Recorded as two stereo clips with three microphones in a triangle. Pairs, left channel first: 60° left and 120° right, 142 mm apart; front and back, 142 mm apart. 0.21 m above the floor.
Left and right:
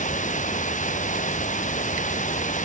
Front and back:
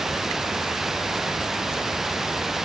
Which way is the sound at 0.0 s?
95° left.